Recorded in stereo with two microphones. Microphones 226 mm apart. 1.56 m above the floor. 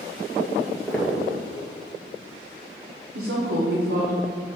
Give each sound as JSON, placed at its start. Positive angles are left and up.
{"t": 0.6, "sound": "footsteps", "side_deg": 5, "distance_m": 2.0}
{"t": 3.1, "sound": "a woman speaking", "side_deg": -75, "distance_m": 1.3}